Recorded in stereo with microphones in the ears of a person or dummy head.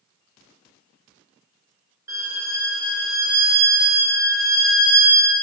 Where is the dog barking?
I don't hear a dog barking.